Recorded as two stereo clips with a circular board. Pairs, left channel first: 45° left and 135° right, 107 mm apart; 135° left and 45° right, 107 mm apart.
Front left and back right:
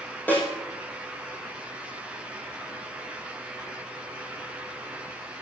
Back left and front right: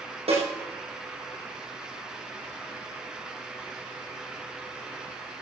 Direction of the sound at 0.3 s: 30° right.